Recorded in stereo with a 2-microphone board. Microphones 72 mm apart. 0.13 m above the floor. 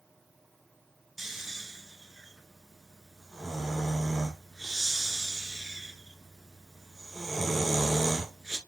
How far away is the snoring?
About 1.0 m.